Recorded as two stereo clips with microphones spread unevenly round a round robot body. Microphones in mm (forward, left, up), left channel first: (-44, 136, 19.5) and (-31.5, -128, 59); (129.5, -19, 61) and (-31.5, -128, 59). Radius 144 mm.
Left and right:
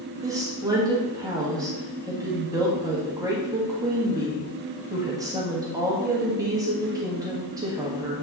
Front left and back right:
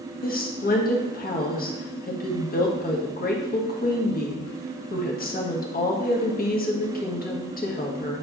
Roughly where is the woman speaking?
Ahead.